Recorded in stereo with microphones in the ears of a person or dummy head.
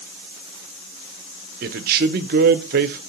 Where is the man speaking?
45° right (ahead or behind), 0.7 m.